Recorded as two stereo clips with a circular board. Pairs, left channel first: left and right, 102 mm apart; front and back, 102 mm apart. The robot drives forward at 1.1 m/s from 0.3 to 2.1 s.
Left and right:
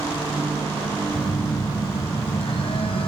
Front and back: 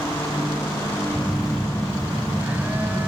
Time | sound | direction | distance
1.1 | a phone buzzing | 80° left | 2.5 m